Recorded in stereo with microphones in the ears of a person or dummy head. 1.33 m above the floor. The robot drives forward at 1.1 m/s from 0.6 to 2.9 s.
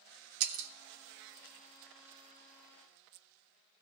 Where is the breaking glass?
75° right (ahead or behind), 2 m; by 0.7 s 70° right (ahead or behind), 2 m.